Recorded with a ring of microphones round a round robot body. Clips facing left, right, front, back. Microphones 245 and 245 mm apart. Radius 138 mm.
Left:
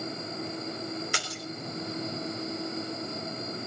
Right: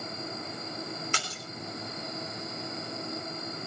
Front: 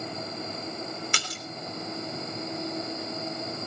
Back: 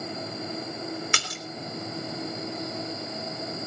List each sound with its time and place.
1.1 s a splash: 170° left, 3.5 m